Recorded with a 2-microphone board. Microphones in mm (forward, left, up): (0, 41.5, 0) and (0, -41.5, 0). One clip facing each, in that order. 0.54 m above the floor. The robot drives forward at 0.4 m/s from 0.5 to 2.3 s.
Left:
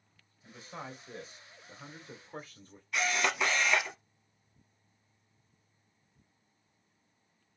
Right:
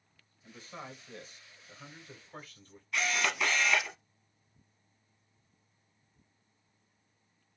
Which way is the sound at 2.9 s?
15° left (ahead or behind).